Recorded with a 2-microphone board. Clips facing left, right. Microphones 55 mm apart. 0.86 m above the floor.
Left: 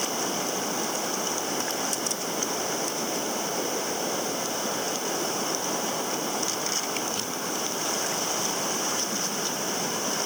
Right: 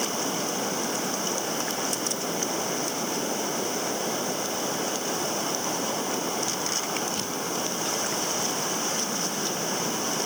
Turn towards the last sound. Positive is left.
No sound to turn to.